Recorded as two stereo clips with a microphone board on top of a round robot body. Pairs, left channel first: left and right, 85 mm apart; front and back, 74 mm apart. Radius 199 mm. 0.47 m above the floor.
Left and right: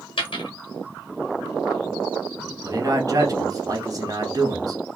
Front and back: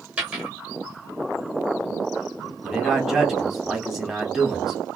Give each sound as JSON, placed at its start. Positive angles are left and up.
{"t": 0.2, "sound": "a dropped coin", "azimuth_deg": 110, "distance_m": 1.1}
{"t": 2.6, "sound": "a man speaking", "azimuth_deg": -95, "distance_m": 1.3}